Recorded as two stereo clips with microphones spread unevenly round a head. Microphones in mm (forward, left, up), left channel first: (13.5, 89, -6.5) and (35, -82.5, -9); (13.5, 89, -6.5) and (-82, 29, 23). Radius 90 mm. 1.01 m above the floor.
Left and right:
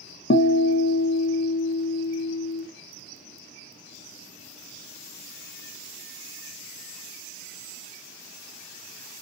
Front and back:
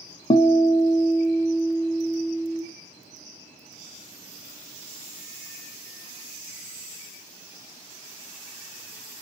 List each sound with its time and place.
0.3 s a guitar: 60° left, 0.5 m